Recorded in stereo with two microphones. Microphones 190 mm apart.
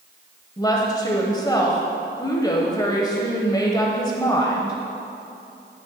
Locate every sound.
0.6 s a woman speaking: 20° left (ahead or behind), 0.9 m